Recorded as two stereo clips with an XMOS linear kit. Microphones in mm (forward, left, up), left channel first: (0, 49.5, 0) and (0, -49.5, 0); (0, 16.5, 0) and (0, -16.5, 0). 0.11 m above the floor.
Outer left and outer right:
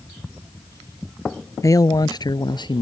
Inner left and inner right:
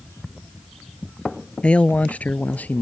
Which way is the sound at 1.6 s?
35° left (ahead or behind).